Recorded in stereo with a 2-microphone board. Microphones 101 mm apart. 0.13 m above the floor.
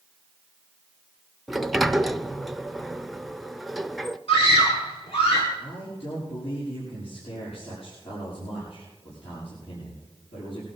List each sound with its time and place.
1.5 s a sliding door: centre (ahead or behind), 0.5 m
4.3 s a scream: 65° left (ahead or behind), 4.5 m
5.6 s a man speaking: 70° left (ahead or behind), 7 m